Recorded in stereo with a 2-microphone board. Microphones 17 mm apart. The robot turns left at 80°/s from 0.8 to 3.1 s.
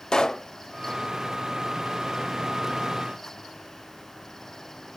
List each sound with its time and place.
0.1 s a pop: 45° left (ahead or behind), 0.5 m